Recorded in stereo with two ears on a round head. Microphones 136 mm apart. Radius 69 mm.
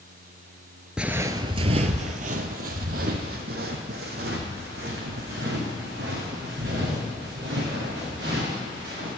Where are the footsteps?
5° right (ahead or behind), 0.6 m; by 9.1 s 75° right (ahead or behind), 5 m.